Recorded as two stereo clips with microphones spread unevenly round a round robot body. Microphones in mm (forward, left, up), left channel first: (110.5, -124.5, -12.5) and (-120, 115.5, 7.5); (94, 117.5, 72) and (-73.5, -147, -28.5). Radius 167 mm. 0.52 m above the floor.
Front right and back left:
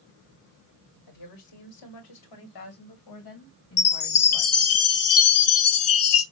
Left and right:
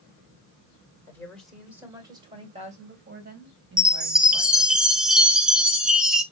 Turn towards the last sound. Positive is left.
turn(degrees=-55)